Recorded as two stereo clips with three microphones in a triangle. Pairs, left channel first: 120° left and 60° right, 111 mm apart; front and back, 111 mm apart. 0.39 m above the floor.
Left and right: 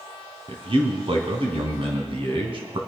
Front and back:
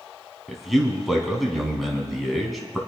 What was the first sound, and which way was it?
A man speaking, 90° right.